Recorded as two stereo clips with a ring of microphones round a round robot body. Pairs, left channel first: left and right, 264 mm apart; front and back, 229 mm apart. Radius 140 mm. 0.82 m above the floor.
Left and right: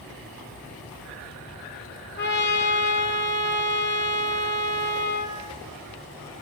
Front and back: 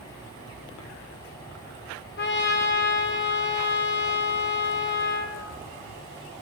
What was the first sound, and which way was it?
A trumpet, 40° left.